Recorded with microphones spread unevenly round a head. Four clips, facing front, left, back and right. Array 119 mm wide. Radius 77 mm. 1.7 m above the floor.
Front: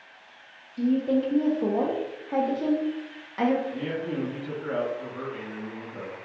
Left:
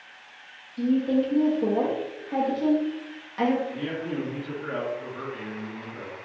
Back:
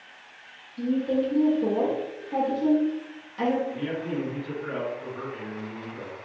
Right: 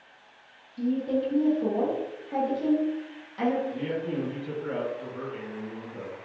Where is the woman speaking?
25° right, 0.6 m.